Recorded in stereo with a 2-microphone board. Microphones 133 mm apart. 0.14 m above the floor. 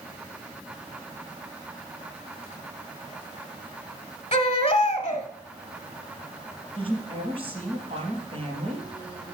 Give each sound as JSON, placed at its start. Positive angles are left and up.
{"t": 4.3, "sound": "a baby crying", "side_deg": 40, "distance_m": 1.2}
{"t": 6.8, "sound": "a woman speaking", "side_deg": -40, "distance_m": 4.0}